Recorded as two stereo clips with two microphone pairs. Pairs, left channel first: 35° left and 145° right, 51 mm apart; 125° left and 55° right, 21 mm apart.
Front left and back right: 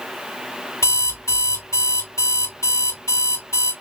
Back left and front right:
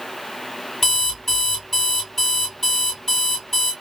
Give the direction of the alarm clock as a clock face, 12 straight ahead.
10 o'clock.